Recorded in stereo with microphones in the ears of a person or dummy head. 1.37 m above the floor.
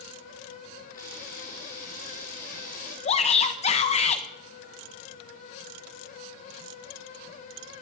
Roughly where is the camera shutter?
Left.